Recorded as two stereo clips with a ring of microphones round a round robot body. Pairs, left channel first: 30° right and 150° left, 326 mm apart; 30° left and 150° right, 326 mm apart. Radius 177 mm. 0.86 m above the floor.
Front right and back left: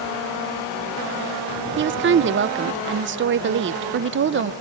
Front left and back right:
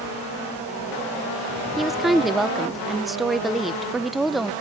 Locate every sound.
1.8 s a woman speaking: 120° left, 0.5 m